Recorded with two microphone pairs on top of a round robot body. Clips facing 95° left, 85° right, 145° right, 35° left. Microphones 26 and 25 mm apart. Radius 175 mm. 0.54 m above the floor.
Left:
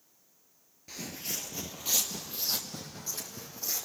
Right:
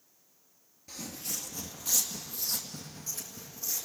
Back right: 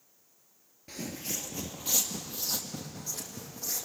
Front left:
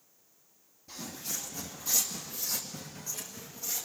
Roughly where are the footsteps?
Behind.